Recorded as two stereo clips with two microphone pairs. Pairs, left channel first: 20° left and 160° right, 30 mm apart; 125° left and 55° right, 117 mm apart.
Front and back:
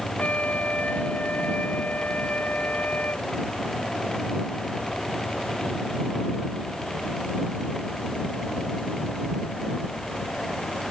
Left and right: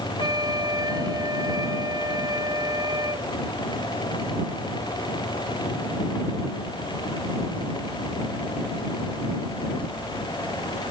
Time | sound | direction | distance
0.2 | a flute | straight ahead | ?